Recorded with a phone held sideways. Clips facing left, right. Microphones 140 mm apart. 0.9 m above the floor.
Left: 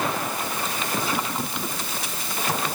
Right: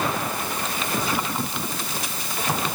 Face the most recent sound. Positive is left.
No sound to turn to.